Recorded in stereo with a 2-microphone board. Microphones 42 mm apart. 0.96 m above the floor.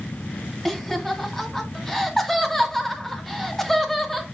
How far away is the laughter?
About 2.5 m.